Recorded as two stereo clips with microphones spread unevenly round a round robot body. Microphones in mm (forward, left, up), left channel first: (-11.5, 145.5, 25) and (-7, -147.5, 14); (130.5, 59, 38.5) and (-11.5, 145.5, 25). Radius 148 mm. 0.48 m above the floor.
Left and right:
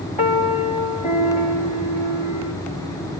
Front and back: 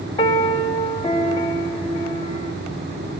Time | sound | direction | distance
0.2 | a piano | 30° left | 1.7 m